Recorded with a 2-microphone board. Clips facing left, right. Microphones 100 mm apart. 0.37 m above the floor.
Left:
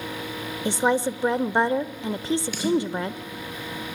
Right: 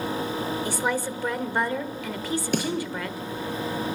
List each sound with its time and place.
0.7 s a woman speaking: 25° left (ahead or behind), 0.8 m
2.5 s a snare drum: 50° right (ahead or behind), 5.5 m